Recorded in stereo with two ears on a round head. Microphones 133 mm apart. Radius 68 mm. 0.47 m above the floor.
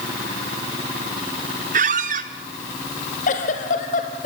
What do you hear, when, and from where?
1.7 s a squeak: 55° right (ahead or behind), 1.7 m
3.3 s a giggle: 55° left (ahead or behind), 3 m